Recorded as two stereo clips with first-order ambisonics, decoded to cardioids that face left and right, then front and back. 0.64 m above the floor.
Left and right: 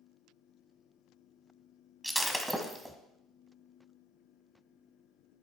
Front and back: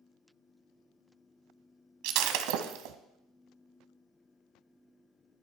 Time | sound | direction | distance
2.0 | breaking glass | straight behind | 1.2 m